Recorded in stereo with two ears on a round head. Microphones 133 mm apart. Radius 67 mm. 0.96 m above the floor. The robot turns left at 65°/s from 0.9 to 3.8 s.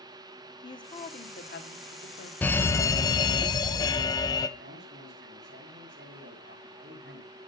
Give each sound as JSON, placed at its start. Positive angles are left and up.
{"t": 0.6, "sound": "a woman speaking", "azimuth_deg": 145, "distance_m": 2.5}
{"t": 2.4, "sound": "a fire alarm", "side_deg": 10, "distance_m": 1.2}
{"t": 4.6, "sound": "a man speaking", "side_deg": -70, "distance_m": 6.5}